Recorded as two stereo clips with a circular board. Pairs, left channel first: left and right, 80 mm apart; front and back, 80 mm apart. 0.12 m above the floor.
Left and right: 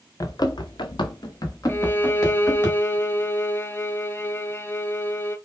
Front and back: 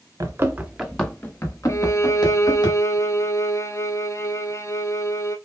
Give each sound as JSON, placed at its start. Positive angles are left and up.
{"t": 0.2, "sound": "running footsteps", "azimuth_deg": 130, "distance_m": 1.1}
{"t": 1.7, "sound": "a violin", "azimuth_deg": 35, "distance_m": 0.5}